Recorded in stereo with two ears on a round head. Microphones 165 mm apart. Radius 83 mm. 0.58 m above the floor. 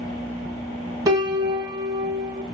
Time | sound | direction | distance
1.1 | a piano | 20° right (ahead or behind) | 1.2 m